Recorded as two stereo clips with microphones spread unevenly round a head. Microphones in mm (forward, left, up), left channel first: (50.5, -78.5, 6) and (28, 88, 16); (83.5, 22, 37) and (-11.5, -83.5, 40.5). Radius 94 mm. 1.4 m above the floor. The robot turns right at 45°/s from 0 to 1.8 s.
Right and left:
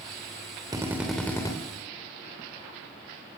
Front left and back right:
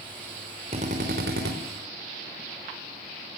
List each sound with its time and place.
0.7 s a drill: 170° left, 3.5 m; by 1.5 s 155° right, 3.5 m